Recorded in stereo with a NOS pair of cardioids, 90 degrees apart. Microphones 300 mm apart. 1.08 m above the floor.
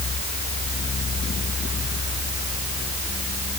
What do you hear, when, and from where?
0.0 s a fan: 35° left